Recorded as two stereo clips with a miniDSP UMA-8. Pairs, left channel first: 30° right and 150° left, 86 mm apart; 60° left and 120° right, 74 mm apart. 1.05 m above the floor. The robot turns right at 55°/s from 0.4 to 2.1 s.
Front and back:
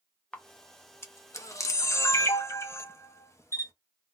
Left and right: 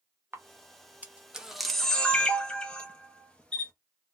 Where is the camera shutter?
95° right, 0.6 m; by 3.7 s 5° right, 0.6 m.